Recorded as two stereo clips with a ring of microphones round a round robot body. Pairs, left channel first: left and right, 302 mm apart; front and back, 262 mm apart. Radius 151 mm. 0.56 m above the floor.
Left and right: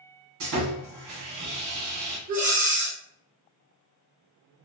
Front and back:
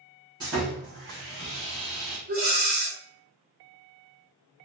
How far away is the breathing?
About 0.7 m.